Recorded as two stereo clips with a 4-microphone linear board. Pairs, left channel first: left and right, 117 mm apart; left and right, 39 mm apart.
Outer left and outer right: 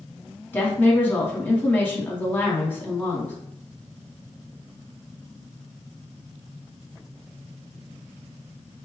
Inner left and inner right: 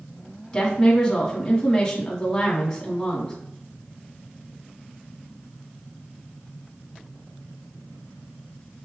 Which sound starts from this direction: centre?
A woman speaking, at 0.5 s.